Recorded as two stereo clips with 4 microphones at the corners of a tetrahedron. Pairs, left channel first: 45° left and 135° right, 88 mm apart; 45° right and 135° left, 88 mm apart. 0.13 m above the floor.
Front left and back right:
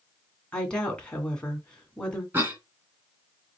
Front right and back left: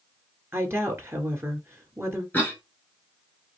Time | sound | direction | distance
0.5 | a woman speaking | 115° left | 1.7 m
2.3 | a cough | 95° right | 1.3 m